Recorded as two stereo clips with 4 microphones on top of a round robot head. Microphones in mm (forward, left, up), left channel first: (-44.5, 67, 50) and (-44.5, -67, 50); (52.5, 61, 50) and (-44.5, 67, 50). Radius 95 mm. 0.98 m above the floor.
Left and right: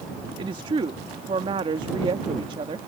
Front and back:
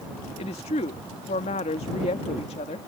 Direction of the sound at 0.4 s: 30° right.